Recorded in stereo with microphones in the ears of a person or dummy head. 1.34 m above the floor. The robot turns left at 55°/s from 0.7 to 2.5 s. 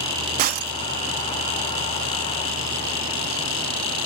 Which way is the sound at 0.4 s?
50° right (ahead or behind).